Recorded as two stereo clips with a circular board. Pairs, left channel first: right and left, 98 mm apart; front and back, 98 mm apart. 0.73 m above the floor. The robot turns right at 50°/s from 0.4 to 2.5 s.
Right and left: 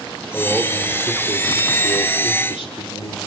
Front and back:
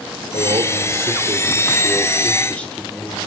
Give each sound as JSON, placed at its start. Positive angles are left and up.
{"t": 0.3, "sound": "a man speaking", "azimuth_deg": 180, "distance_m": 1.9}